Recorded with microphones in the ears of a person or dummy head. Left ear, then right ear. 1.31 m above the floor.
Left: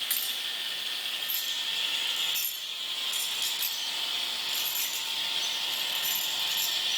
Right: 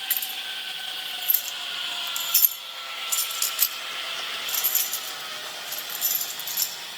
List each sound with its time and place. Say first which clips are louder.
0.1 s keys jangling: right 1 dB; 20° right (ahead or behind), 1.7 m; by 6.7 s 70° right (ahead or behind), 5 m